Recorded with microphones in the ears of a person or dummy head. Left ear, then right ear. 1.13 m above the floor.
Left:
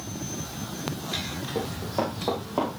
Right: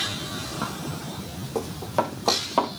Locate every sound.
1.6 s running footsteps: 65° right (ahead or behind), 3.5 m; by 2.7 s 50° right (ahead or behind), 4 m